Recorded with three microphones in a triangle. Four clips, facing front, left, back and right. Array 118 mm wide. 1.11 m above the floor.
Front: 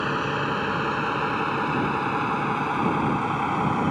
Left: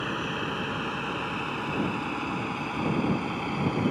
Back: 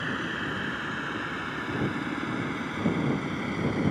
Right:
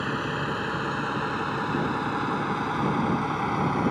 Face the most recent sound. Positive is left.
turn(degrees=-25)